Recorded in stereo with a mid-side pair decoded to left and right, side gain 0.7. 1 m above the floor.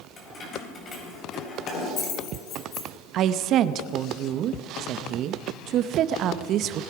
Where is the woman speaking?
50° right, 0.7 m.